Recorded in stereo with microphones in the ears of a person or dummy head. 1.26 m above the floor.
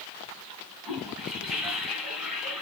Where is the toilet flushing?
5° right (ahead or behind), 2.5 m.